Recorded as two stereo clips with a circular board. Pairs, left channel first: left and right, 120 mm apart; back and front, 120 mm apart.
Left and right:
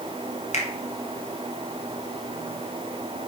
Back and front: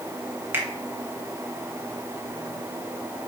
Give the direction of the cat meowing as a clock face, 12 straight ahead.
No cat meowing in this recording.